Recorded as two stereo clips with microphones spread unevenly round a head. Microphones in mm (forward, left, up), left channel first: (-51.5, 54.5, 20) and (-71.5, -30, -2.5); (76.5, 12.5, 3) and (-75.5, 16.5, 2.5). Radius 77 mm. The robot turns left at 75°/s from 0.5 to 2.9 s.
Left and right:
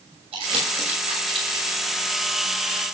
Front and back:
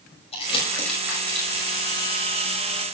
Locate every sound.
0.3 s crumpling: 55° right, 6 m; by 1.8 s 155° right, 6 m